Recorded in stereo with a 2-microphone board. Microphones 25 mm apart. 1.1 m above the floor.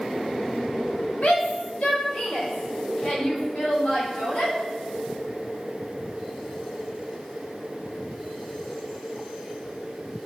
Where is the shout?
70° left (ahead or behind), 4.5 m; by 4.5 s 45° left (ahead or behind), 8.5 m.